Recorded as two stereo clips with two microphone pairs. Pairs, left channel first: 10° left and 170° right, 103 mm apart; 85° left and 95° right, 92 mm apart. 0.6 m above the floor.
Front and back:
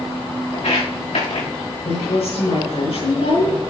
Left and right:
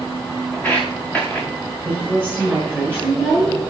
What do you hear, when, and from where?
0.5 s footsteps: 15° left, 4 m
1.9 s a woman speaking: 5° left, 7.5 m